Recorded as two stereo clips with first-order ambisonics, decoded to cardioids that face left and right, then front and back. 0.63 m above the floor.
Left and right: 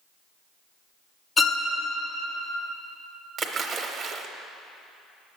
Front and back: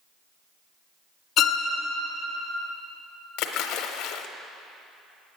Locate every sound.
1.4 s a violin: 25° left, 0.6 m
3.4 s a splash: 25° right, 0.7 m